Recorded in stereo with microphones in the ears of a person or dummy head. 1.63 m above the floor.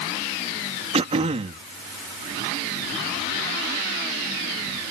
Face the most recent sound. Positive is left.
turn(degrees=-35)  # may be behind; listen again after turning